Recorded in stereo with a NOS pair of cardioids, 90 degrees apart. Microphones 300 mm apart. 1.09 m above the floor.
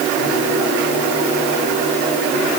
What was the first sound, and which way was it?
Only background noise.